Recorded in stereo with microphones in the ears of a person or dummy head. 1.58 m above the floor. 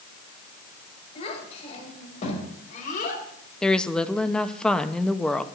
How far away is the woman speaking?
About 0.7 m.